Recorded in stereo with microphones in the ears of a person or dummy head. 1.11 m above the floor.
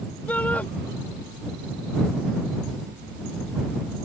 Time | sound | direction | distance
0.3 | a shout | 10° left (ahead or behind) | ?